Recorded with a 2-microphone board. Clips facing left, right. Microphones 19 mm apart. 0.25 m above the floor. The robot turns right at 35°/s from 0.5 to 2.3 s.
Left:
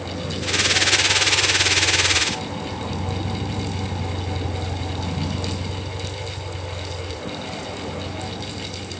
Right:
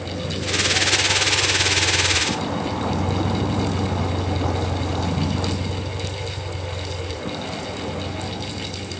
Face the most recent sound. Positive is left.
turn(degrees=0)  # may be behind; listen again after turning